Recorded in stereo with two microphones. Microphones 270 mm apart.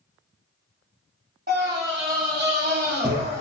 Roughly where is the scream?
Right.